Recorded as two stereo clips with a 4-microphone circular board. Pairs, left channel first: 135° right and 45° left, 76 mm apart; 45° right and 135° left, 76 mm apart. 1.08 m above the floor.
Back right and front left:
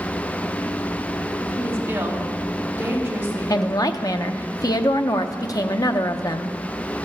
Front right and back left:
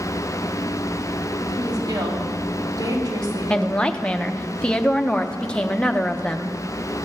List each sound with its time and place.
1.5 s a woman speaking: 110° left, 2.5 m
3.5 s a woman speaking: 120° right, 0.6 m